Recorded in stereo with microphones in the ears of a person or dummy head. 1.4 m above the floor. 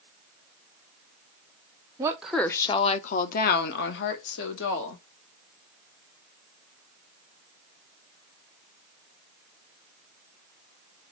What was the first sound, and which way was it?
A woman speaking, 20° right (ahead or behind).